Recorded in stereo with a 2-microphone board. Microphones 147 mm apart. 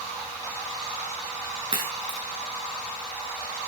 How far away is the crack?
About 7.5 m.